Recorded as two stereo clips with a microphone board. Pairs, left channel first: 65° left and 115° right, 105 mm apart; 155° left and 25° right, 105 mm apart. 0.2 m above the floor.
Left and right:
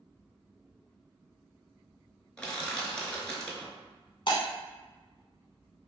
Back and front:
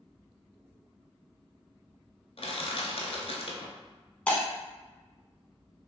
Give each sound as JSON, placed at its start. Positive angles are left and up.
{"t": 2.4, "sound": "crushing", "azimuth_deg": 150, "distance_m": 0.6}
{"t": 4.3, "sound": "breaking glass", "azimuth_deg": 85, "distance_m": 0.6}